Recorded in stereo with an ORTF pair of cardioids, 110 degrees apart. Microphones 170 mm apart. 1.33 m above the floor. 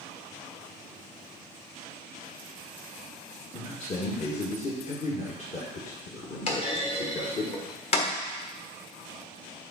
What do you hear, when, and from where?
3.5 s a man speaking: 45° left, 1.6 m
6.5 s a clunk: 40° left, 1.6 m